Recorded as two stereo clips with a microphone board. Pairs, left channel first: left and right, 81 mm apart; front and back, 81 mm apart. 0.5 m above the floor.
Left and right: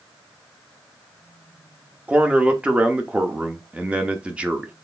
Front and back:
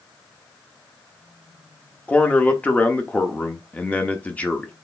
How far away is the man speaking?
About 0.9 m.